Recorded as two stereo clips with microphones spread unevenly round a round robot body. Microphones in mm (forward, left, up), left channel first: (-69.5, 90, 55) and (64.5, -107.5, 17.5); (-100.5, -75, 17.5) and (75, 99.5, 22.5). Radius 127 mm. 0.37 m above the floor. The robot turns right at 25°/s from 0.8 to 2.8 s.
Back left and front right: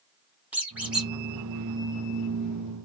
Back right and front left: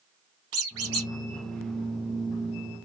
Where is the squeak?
25° left, 1.2 m; by 1.1 s 30° left, 1.2 m.